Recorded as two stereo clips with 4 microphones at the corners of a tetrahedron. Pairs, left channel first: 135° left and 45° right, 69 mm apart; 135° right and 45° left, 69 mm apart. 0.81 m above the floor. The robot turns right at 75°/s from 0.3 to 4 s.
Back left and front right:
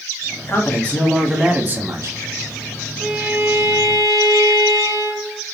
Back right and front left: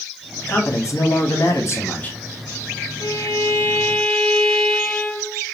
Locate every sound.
0.5 s a man speaking: 170° left, 1.0 m; by 2.2 s 60° right, 1.0 m
3.0 s a violin: 130° right, 1.2 m; by 5.4 s 55° right, 1.2 m